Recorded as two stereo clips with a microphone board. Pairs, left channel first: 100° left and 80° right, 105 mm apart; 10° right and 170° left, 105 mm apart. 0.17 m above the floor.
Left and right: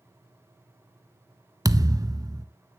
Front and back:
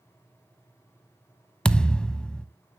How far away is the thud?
About 0.5 m.